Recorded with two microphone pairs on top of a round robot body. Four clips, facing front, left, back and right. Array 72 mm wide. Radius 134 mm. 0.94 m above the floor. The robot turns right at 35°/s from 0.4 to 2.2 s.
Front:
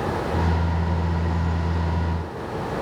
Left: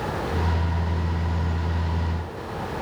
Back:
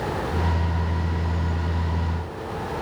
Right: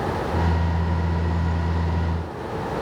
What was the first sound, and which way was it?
Only background noise.